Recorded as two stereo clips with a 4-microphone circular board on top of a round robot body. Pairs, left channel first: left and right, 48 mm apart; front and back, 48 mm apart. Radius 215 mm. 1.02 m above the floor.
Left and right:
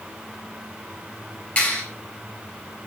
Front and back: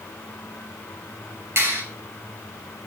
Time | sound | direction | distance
1.6 | a clap | 155° left | 7 m